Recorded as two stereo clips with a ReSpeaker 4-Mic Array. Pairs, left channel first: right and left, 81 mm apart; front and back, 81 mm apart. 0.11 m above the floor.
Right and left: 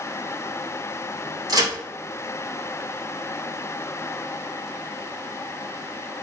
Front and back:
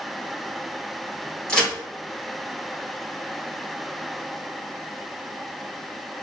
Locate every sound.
1.5 s a crack: 75° left, 2.0 m